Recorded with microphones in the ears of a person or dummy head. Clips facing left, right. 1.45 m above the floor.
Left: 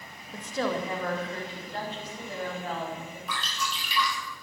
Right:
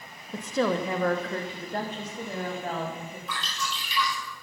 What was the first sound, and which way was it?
A woman speaking, 65° right (ahead or behind).